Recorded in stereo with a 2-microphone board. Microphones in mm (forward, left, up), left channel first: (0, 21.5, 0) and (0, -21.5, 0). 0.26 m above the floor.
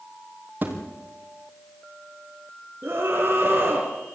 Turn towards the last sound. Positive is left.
turn(degrees=-45)  # may be behind; listen again after turning